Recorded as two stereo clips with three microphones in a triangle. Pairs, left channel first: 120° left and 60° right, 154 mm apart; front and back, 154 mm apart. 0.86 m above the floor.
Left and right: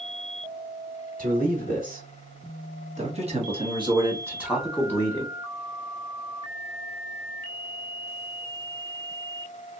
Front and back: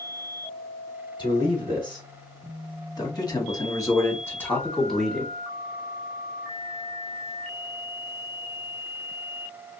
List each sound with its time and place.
1.2 s a man speaking: 55° right, 1.9 m; by 5.3 s 100° left, 0.8 m